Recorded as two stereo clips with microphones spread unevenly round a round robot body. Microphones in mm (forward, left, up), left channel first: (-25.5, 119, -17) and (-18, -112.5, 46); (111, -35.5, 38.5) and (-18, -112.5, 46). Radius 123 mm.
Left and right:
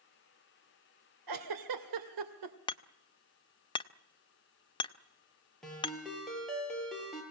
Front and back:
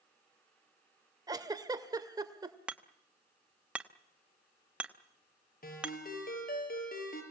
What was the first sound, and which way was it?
A giggle, 80° right.